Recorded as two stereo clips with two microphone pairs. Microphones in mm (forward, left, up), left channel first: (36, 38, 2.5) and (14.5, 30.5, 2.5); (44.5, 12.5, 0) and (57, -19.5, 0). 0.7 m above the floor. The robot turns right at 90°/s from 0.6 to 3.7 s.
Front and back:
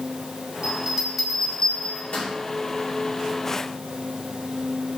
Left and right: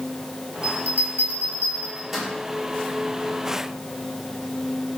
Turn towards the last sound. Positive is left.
turn(degrees=150)